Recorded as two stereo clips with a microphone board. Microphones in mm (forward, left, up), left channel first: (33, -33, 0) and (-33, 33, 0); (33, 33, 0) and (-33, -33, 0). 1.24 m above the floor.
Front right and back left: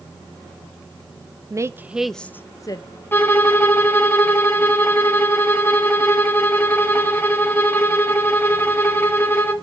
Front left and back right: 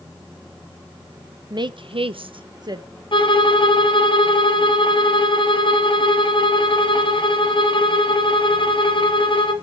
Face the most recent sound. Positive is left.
turn(degrees=20)